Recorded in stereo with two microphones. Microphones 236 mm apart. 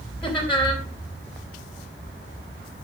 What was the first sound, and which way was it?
Laughter, 5° left (ahead or behind).